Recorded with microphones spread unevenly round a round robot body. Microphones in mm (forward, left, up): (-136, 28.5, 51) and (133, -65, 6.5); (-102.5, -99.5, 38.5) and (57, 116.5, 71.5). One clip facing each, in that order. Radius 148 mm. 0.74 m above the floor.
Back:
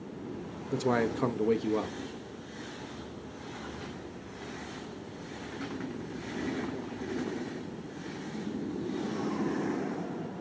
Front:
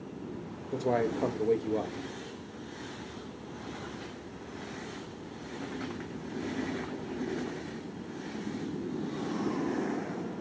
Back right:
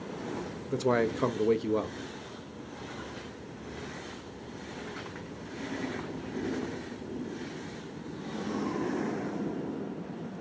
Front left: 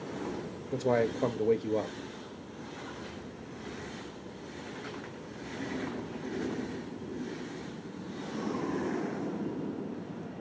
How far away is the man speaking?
About 0.5 m.